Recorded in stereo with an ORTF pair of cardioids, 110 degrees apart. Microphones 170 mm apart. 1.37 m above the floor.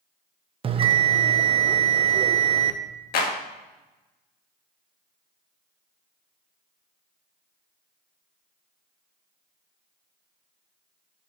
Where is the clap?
65° left, 1.7 m.